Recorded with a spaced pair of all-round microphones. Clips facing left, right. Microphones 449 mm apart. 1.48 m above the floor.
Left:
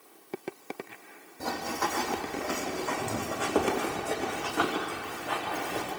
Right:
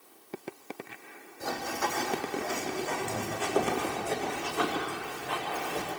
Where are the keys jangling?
I don't hear keys jangling.